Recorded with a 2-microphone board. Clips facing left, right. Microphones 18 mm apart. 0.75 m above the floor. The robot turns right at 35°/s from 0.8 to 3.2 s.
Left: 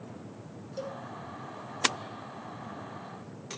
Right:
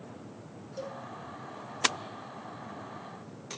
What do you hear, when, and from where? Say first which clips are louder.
0.8 s a cowbell: left 2 dB; 20° left (ahead or behind), 5 m; by 1.0 s 10° left (ahead or behind), 5 m